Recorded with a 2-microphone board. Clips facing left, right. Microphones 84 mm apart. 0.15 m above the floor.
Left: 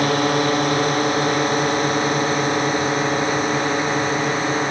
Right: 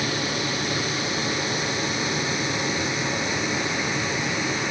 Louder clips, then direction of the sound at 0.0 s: Left 9 dB; 50° left (ahead or behind).